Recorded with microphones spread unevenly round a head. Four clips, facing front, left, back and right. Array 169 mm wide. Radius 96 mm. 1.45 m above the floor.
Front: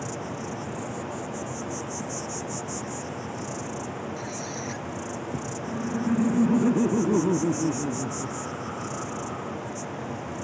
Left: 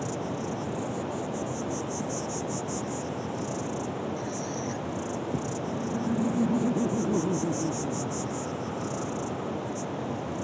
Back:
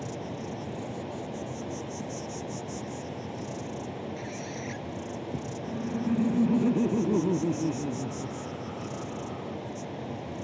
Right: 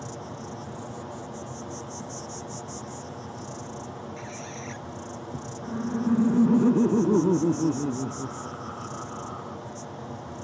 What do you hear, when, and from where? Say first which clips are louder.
0.0 s an insect: left 6 dB, front 3 dB; 10° left
4.2 s a squeak: left 5 dB, front 3 dB; 65° right
5.6 s laughter: right 7 dB, front 3 dB; 70° right